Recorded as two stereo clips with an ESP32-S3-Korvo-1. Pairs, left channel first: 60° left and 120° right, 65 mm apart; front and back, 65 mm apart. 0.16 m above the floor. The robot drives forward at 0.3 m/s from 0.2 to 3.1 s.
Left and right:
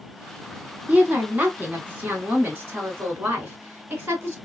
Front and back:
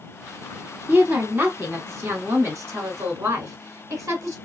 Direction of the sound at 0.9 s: 160° right.